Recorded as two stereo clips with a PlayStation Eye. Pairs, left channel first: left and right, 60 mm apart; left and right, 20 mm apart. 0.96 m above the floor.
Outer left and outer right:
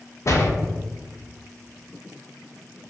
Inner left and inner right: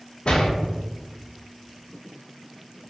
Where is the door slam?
50° left (ahead or behind), 0.6 m.